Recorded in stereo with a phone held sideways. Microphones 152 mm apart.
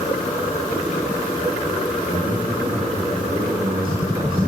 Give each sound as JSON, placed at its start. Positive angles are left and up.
{"t": 2.0, "sound": "a man speaking", "side_deg": -60, "distance_m": 9.0}